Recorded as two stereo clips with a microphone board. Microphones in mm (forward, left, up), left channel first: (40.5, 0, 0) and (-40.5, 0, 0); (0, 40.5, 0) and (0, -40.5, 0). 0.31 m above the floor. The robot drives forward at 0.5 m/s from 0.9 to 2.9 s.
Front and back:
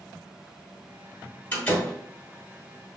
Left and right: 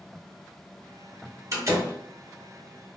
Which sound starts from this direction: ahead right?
A door slam, at 1.5 s.